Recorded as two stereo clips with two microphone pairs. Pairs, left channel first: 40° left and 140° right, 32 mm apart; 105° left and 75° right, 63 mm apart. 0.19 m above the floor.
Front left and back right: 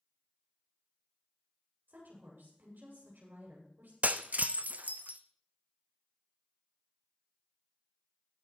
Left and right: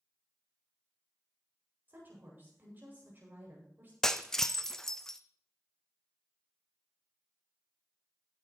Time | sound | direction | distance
1.9 | a woman speaking | 135° right | 7.5 m
4.0 | breaking glass | 175° right | 0.5 m